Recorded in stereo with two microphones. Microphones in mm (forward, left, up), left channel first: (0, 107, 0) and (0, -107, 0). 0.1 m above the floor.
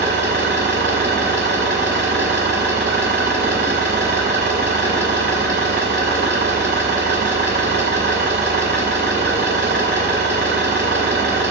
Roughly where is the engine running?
Right.